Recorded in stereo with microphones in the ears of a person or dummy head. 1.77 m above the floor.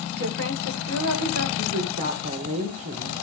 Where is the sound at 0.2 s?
90° right, 8.5 m.